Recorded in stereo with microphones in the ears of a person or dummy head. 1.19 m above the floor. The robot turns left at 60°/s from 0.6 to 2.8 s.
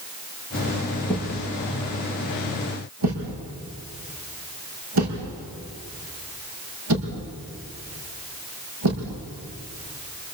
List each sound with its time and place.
1.1 s a thud: 5° left (ahead or behind), 6 m; by 9.1 s 80° right, 6 m